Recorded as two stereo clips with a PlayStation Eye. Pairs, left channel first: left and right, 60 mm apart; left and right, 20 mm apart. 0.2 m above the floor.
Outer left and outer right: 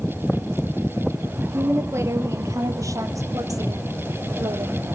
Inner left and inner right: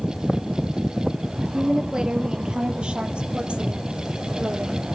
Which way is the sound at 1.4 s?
35° right (ahead or behind).